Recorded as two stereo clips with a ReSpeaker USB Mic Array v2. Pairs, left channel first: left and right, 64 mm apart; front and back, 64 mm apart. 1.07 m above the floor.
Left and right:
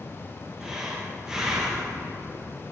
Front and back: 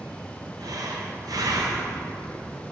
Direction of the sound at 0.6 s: 170° right.